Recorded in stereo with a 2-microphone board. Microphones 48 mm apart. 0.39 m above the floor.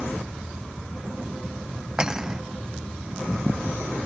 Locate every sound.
2.0 s cutlery clinking: 15° right (ahead or behind)